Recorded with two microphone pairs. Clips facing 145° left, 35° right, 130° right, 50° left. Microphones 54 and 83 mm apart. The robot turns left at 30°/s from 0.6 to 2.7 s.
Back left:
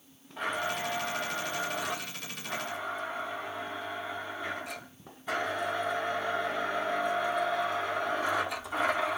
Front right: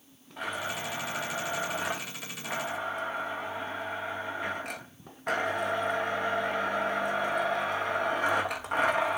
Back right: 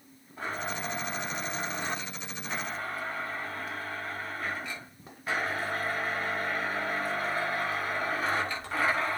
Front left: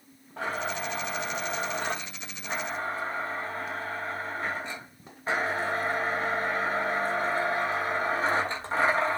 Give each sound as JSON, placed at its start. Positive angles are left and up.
{"t": 0.4, "sound": "a blender", "azimuth_deg": 55, "distance_m": 6.5}